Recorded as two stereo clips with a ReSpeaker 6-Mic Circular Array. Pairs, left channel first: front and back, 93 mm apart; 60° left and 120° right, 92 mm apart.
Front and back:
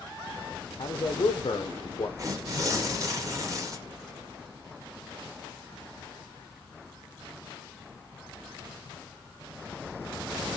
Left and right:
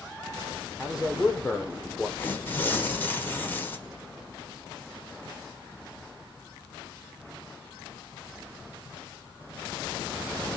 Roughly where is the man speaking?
Ahead right.